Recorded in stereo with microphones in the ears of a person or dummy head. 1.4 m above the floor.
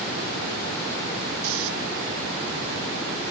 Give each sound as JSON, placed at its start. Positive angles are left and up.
{"t": 1.4, "sound": "snoring", "side_deg": -85}